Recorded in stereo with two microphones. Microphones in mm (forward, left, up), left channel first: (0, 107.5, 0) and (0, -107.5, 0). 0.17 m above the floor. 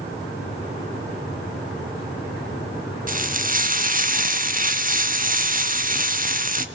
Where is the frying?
40° right (ahead or behind), 1.2 m.